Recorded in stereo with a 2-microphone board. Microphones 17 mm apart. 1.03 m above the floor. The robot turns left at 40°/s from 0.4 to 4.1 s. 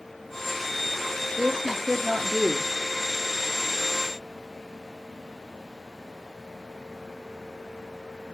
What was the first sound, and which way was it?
A woman speaking, 65° right.